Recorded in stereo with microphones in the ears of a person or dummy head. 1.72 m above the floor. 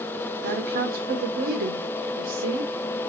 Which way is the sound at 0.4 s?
45° right (ahead or behind).